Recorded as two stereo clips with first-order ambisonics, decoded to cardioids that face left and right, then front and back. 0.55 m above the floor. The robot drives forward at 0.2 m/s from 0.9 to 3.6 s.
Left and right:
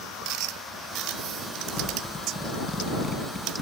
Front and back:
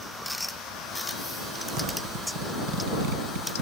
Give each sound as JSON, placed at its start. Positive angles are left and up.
{"t": 1.8, "sound": "a zipper", "azimuth_deg": 170, "distance_m": 4.5}